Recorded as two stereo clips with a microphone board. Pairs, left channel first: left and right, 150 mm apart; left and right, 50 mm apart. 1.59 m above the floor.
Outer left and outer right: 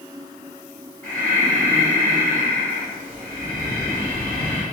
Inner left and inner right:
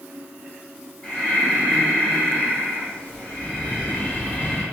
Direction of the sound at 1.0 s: 10° left (ahead or behind).